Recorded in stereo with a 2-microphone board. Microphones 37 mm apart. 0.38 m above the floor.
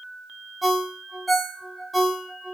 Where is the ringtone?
Centre (ahead or behind), 1.6 m.